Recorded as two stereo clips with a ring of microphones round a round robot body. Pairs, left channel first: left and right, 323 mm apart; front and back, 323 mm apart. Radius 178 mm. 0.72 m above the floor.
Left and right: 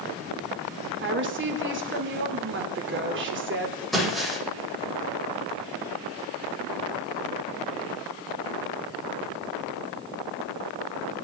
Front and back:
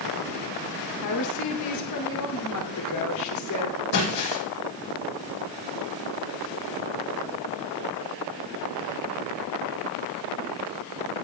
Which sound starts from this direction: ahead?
Breaking glass, at 3.9 s.